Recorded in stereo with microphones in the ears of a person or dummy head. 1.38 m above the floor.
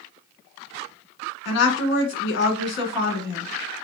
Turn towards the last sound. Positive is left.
turn(degrees=70)  # may be behind; listen again after turning